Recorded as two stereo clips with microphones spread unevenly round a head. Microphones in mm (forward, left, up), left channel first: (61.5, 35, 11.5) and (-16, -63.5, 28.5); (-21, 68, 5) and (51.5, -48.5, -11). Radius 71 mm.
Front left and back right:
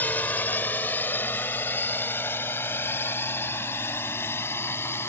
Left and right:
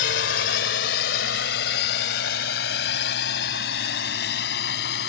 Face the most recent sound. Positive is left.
turn(degrees=125)